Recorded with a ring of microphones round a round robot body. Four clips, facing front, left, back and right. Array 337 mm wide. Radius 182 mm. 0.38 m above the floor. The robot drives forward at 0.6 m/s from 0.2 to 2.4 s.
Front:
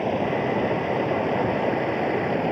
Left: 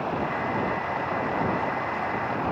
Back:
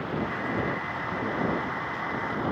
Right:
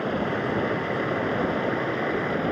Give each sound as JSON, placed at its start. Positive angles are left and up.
{"t": 0.0, "sound": "running water", "azimuth_deg": -30}